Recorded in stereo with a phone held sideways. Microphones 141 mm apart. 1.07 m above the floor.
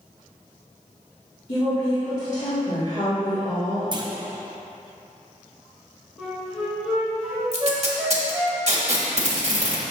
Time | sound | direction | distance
1.5 | a woman speaking | 55° left (ahead or behind) | 2.0 m
3.9 | a clunk | 35° right (ahead or behind) | 0.7 m
6.2 | a flute | centre (ahead or behind) | 2 m
7.5 | tape being pulled | 50° right (ahead or behind) | 1.3 m